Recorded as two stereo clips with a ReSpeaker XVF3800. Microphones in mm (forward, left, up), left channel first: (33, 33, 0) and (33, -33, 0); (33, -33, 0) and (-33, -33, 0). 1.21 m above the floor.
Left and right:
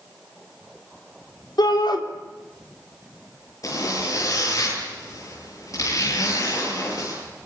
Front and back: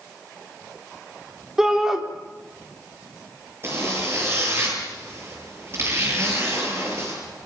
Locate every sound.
1.6 s a shout: 95° left, 4 m
3.6 s a zipper: 130° left, 9.5 m